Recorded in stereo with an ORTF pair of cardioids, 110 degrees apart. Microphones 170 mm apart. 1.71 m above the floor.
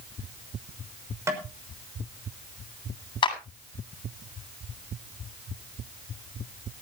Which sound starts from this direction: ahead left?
A clap, at 3.2 s.